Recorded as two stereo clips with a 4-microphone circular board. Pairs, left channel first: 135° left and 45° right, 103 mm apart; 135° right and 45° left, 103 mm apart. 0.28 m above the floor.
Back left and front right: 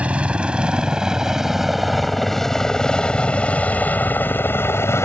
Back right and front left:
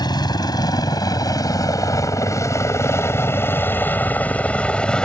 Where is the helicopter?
120° right; by 5.0 s 150° left.